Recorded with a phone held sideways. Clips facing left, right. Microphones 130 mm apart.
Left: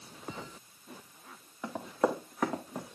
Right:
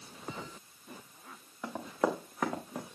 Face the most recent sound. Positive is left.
turn(degrees=0)  # may be behind; listen again after turning